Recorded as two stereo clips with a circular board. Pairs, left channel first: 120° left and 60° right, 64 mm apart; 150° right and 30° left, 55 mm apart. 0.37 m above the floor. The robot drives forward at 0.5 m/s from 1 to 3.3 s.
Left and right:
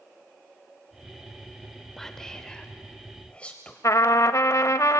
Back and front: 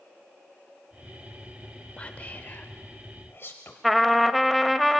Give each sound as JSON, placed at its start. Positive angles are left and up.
{"t": 2.0, "sound": "whispering", "azimuth_deg": -165, "distance_m": 0.8}
{"t": 3.8, "sound": "a trumpet", "azimuth_deg": 120, "distance_m": 0.7}